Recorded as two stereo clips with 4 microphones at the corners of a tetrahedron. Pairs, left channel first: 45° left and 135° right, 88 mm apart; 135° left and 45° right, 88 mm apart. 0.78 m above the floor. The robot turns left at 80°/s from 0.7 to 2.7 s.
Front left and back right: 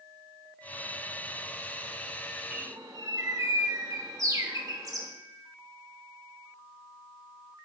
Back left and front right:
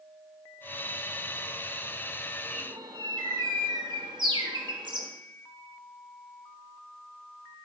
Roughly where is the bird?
Ahead right.